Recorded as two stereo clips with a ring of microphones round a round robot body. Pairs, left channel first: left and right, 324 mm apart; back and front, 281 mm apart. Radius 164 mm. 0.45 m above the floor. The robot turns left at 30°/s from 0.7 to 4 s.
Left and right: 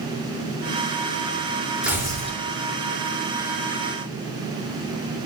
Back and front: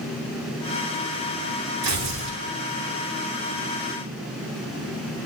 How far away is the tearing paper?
About 5.5 m.